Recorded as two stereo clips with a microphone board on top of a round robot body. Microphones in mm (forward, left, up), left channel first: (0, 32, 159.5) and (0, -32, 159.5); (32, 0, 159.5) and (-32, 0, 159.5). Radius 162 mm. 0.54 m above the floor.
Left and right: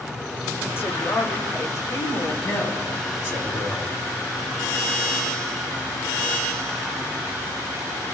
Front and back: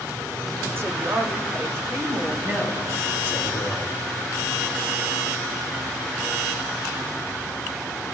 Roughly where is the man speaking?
Behind left.